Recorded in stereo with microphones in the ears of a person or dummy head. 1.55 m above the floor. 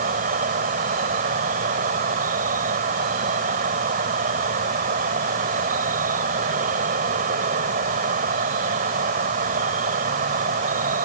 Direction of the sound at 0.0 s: 50° right (ahead or behind).